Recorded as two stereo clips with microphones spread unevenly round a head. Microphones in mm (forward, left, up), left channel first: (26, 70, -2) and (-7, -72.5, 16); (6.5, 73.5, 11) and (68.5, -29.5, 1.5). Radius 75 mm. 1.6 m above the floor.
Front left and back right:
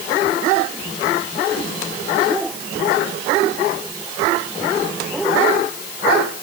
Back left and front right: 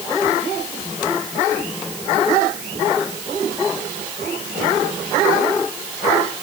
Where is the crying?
I don't hear crying.